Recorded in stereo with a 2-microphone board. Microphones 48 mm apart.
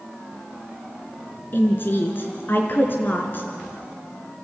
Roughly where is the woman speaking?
Left.